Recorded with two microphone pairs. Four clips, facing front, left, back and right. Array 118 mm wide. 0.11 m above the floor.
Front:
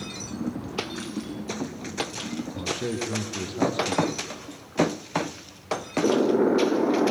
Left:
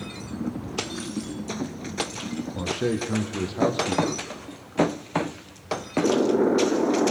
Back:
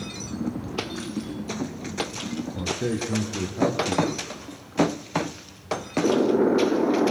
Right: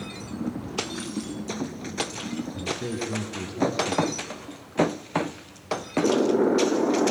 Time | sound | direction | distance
2.5 | a man speaking | 80° left | 4 m